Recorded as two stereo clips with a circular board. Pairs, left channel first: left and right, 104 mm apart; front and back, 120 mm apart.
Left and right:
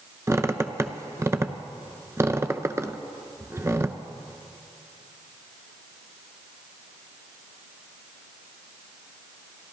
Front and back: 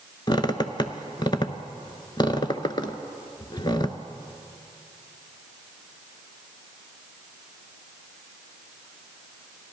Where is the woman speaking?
No woman speaking in this recording.